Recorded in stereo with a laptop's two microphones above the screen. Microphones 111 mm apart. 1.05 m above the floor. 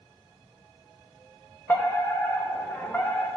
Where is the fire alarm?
15° left (ahead or behind), 1.1 m.